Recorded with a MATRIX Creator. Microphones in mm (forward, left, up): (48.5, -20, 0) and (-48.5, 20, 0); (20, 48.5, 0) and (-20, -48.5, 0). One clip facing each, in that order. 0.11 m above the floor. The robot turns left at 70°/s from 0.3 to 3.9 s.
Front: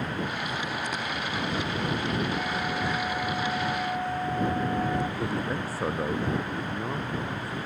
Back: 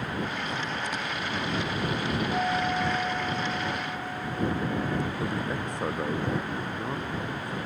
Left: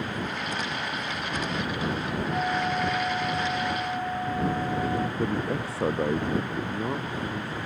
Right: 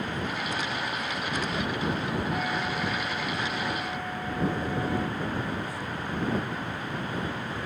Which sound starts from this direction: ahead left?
A man speaking, at 5.2 s.